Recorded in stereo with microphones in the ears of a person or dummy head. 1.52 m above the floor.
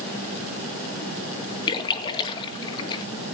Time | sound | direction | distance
1.7 | a splash | 30° left (ahead or behind) | 2 m